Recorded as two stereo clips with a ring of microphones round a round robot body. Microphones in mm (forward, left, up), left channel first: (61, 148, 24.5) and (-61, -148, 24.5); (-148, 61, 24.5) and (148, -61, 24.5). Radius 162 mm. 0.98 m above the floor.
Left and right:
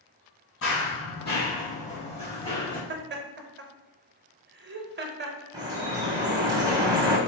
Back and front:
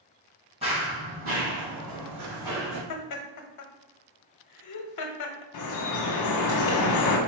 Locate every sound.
0.6 s running footsteps: 40° left, 1.2 m; by 2.8 s 5° right, 2 m
2.9 s laughter: 170° right, 0.7 m
5.5 s dripping: 170° left, 0.7 m